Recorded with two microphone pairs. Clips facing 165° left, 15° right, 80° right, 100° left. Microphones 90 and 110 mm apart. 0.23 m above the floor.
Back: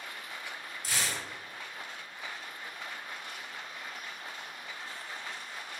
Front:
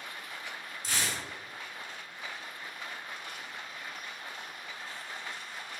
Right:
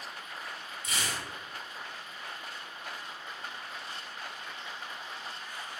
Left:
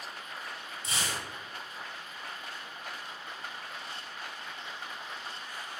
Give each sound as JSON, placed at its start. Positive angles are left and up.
{"t": 0.8, "sound": "tearing paper", "azimuth_deg": 80, "distance_m": 1.2}